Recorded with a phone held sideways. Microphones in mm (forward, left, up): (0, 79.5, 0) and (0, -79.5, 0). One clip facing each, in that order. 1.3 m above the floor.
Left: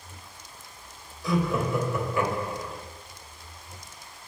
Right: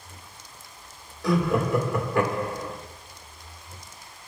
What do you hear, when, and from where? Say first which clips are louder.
1.2 s laughter: right 3 dB; 60° right (ahead or behind), 1.7 m